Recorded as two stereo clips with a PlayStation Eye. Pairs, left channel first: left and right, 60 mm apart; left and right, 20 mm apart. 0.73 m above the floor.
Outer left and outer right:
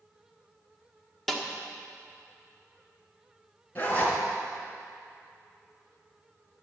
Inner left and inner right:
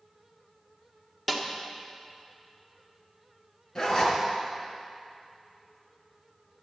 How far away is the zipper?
About 3 m.